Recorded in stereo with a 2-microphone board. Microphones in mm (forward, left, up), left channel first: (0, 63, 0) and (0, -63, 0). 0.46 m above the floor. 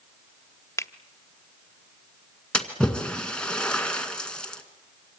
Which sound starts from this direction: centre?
A splash, at 2.5 s.